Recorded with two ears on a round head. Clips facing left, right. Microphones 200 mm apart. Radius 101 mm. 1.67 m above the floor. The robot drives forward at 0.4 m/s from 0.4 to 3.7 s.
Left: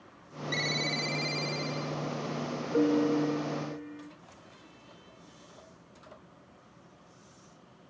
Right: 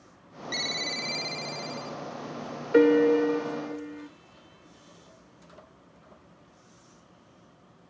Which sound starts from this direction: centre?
A ringtone, at 0.5 s.